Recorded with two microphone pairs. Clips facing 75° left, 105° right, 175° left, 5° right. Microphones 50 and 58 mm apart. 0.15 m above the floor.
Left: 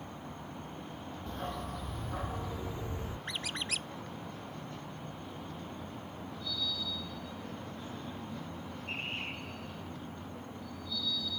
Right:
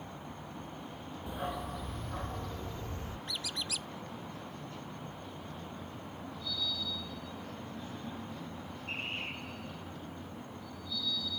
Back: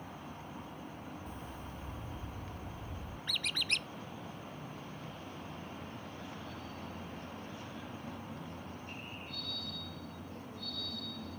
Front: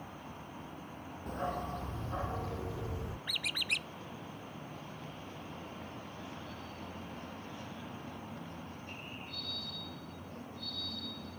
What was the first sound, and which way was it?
A dog barking, 30° right.